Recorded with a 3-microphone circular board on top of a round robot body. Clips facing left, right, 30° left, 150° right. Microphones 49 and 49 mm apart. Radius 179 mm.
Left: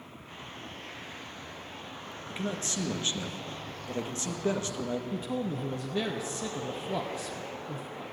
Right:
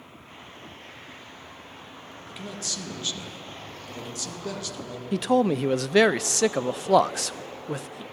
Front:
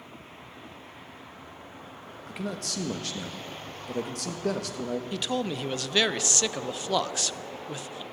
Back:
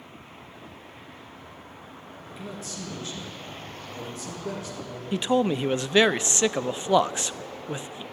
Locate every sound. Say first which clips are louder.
2.3 s a man speaking: left 3 dB, front 4 dB; 30° left, 2 m
5.1 s a man speaking: right 11 dB, back 12 dB; 85° right, 0.6 m